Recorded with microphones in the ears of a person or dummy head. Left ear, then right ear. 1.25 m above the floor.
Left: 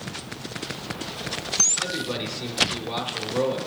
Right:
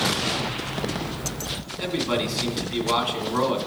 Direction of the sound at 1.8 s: 90° right.